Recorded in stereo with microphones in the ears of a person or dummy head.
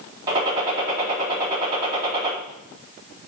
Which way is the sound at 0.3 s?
35° right (ahead or behind).